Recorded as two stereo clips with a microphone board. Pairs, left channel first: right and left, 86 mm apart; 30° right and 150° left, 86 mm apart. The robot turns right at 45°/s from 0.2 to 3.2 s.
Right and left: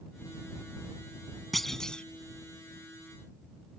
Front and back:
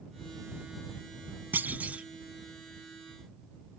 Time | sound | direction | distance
1.5 | a clunk | 175° right | ?